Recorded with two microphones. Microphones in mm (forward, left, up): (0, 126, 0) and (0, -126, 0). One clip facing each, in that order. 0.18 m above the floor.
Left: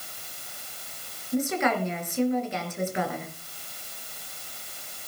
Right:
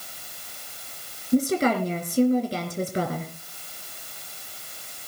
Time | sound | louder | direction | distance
1.3 | a woman speaking | right 5 dB | 40° right (ahead or behind) | 3 m